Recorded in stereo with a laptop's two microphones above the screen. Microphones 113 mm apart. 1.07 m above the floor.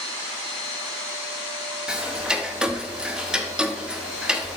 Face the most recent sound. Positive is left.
turn(degrees=-5)  # may be behind; listen again after turning